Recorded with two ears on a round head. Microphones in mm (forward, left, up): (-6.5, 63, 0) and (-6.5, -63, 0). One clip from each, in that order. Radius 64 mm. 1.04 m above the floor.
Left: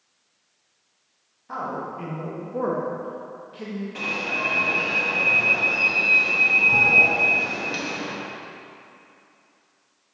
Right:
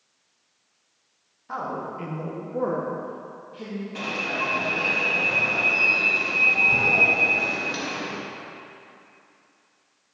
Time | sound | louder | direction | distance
1.5 | a man speaking | even | 15° right (ahead or behind) | 1.5 m
4.0 | an alarm | left 1 dB | centre (ahead or behind) | 1.3 m